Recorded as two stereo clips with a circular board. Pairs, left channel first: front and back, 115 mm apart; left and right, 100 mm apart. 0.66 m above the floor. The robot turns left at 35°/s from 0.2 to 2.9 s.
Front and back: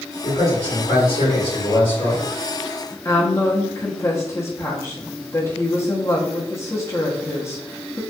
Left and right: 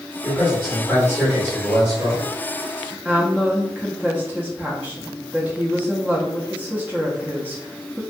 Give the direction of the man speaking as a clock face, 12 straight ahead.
11 o'clock.